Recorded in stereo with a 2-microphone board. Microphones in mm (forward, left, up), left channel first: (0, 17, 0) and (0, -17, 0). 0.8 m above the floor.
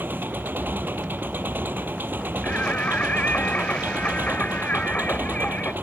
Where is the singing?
55° left (ahead or behind).